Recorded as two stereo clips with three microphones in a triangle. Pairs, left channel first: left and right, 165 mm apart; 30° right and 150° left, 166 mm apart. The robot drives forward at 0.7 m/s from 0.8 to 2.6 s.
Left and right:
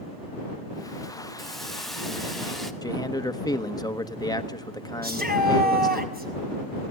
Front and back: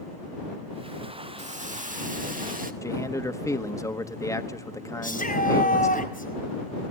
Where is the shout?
65° right, 4.5 m.